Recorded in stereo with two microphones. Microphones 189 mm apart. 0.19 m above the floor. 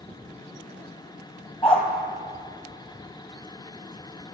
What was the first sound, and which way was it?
A dog barking, 30° left (ahead or behind).